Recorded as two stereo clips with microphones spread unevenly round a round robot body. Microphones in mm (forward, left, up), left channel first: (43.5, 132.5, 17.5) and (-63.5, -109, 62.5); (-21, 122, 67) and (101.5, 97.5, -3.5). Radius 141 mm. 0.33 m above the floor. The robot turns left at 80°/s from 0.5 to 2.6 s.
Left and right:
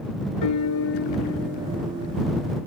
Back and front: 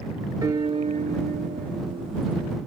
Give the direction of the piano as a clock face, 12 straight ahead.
10 o'clock.